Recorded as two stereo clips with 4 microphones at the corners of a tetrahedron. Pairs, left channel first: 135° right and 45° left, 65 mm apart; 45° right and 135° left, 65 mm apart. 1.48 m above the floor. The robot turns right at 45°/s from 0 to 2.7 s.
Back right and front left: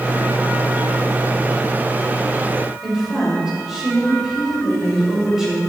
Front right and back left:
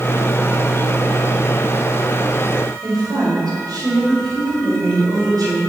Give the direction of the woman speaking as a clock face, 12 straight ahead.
8 o'clock.